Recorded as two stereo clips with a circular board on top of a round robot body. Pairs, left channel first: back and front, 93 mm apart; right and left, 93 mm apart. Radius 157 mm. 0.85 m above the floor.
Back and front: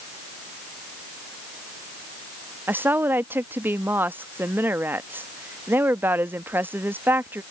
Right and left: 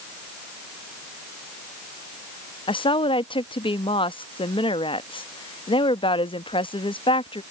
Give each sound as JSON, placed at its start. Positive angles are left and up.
{"t": 2.7, "sound": "a woman speaking", "azimuth_deg": -70}